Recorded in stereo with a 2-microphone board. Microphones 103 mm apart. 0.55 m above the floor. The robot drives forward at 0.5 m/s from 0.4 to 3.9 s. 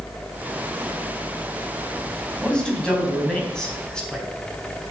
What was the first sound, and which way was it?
A man speaking, 10° left (ahead or behind).